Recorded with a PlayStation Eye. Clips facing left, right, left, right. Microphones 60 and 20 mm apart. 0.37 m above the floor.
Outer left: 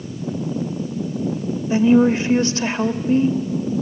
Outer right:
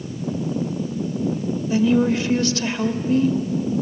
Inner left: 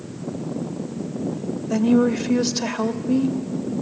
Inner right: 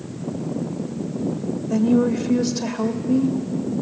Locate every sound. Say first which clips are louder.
1.7 s a woman speaking: outer left 4 dB, inner left 1 dB; 30° left (ahead or behind), 1.0 m